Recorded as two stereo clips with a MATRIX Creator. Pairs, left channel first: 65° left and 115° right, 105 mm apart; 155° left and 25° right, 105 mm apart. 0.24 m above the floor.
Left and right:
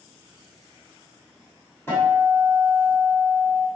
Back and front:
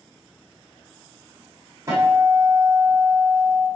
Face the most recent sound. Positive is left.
turn(degrees=10)